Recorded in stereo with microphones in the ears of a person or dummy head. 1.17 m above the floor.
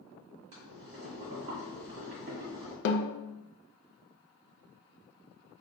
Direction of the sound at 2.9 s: 75° left (ahead or behind).